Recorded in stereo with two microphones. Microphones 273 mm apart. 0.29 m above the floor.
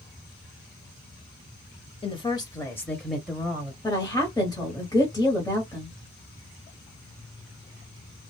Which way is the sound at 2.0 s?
20° left (ahead or behind).